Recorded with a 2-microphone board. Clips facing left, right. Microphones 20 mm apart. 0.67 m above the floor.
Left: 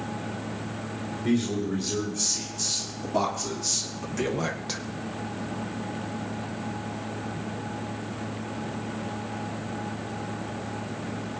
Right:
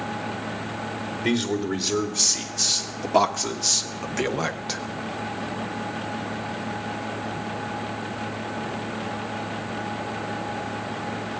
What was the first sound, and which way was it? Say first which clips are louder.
A man speaking: right 2 dB; 70° right (ahead or behind).